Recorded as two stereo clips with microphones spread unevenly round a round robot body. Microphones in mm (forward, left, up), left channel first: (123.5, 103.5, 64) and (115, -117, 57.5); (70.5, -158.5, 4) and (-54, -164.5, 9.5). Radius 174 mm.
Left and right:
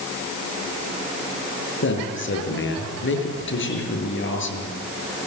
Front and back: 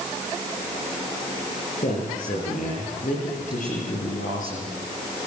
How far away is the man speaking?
About 6.5 m.